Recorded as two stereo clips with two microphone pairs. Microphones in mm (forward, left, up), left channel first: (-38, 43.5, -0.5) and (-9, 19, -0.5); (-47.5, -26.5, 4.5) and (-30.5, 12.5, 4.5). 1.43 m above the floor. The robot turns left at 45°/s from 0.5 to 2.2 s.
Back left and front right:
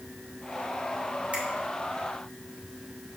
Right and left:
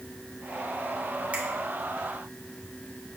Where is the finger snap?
10° left, 1.8 m; by 1.4 s 5° left, 1.8 m.